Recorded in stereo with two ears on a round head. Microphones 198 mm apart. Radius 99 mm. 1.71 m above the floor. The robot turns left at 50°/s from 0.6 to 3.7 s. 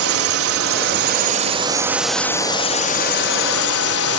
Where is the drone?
105° right; by 4.2 s 100° left.